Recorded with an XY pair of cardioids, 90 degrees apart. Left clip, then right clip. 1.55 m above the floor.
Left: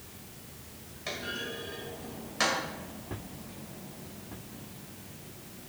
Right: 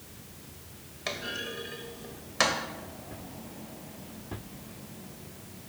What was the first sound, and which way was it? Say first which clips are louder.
A clunk: right 1 dB; 60° right.